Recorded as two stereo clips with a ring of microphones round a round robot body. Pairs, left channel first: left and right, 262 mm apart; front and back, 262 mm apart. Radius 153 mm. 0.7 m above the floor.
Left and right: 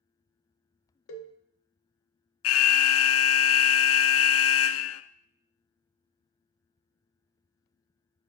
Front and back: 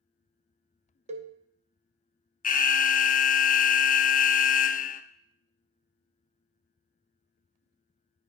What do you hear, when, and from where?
1.1 s a cowbell: 120° left, 1.0 m
2.4 s an alarm: 60° left, 0.5 m